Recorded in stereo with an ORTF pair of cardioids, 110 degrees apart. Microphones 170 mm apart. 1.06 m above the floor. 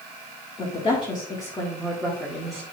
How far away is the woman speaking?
About 1.6 m.